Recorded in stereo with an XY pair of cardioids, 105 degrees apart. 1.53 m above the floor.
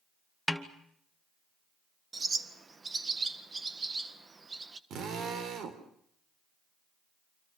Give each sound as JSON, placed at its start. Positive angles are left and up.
{"t": 0.5, "sound": "a snare drum", "azimuth_deg": -5, "distance_m": 2.0}
{"t": 2.1, "sound": "a bird", "azimuth_deg": -30, "distance_m": 1.6}
{"t": 4.9, "sound": "a drill", "azimuth_deg": -70, "distance_m": 3.5}